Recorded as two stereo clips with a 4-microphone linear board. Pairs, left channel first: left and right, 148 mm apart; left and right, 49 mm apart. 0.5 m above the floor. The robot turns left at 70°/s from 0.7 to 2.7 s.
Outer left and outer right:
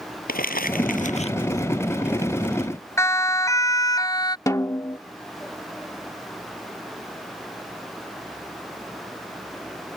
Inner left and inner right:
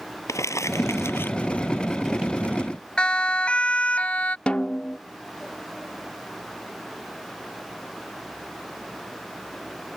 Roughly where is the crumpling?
Left.